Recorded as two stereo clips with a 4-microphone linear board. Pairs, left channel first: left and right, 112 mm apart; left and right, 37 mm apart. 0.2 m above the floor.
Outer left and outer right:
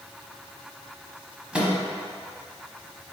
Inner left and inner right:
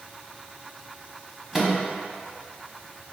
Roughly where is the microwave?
Centre.